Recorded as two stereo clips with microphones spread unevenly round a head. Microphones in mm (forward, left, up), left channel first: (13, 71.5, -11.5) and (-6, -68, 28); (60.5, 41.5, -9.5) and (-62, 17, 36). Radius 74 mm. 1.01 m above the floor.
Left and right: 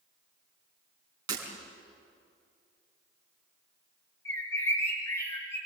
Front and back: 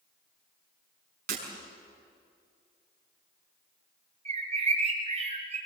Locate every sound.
1.3 s breaking glass: 160° right, 5.5 m
4.2 s a bird: 155° left, 5.5 m